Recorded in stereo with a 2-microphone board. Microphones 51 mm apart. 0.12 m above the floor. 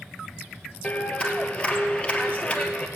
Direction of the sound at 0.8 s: 25° left (ahead or behind).